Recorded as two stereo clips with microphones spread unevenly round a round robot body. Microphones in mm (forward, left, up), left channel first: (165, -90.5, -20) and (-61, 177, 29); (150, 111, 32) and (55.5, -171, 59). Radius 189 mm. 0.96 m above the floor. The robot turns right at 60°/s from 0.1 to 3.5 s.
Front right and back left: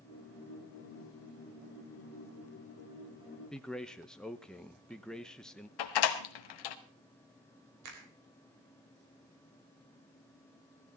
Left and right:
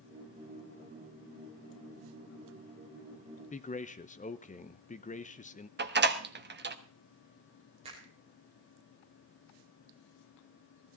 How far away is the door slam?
About 1.4 m.